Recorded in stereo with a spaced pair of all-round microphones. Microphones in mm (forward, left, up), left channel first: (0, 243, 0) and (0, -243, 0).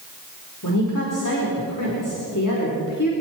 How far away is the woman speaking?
About 4.5 m.